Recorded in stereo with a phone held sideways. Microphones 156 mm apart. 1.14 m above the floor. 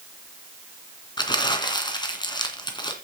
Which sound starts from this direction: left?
Crumpling, at 1.2 s.